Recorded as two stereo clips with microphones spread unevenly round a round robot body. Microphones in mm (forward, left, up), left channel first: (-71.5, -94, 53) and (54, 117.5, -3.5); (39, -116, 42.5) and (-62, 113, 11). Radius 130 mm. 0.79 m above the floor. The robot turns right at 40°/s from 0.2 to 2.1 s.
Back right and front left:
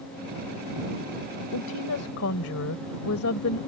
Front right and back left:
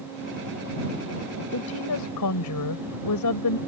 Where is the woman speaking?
105° right; by 3.6 s 85° right.